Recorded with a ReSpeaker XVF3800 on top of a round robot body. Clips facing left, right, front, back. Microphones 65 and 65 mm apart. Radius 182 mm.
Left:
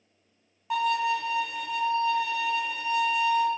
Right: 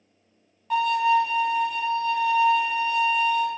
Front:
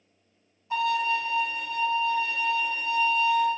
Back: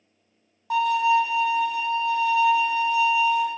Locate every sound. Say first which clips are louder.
0.7 s a violin: right 5 dB, back 6 dB; 175° left, 1.7 m